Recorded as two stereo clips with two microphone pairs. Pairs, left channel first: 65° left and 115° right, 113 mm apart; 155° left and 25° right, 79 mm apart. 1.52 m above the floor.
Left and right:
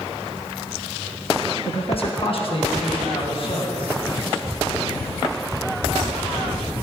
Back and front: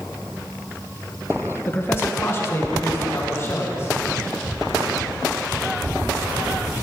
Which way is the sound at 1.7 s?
95° left.